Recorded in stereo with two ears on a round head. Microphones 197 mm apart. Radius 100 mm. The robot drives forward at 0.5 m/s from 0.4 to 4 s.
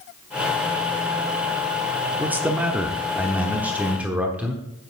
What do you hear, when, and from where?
2.2 s a man speaking: 10° right (ahead or behind), 0.9 m